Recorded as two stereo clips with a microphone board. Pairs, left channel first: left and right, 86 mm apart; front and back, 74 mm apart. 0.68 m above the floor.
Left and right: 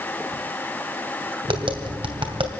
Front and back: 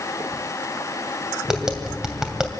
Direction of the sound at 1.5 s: 95° right.